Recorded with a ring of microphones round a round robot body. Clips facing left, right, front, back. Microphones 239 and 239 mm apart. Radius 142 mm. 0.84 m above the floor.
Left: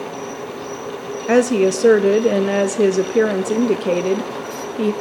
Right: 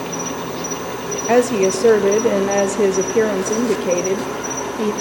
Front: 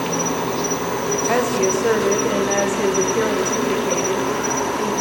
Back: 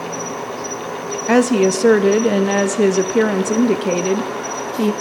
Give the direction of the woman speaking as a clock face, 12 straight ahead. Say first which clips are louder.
Left 1 dB, back 7 dB; 6 o'clock.